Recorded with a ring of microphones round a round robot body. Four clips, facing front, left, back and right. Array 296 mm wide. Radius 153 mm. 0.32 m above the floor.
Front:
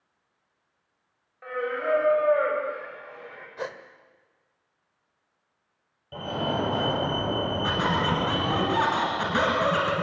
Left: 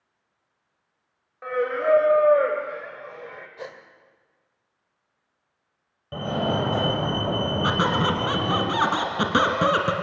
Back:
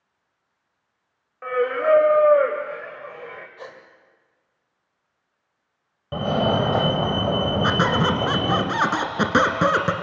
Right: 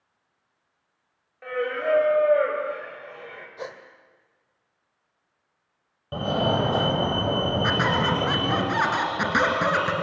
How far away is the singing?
About 2 m.